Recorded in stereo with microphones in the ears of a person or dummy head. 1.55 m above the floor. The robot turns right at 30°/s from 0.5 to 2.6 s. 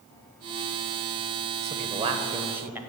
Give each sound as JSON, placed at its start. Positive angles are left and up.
{"t": 1.6, "sound": "a man speaking", "side_deg": -40, "distance_m": 0.9}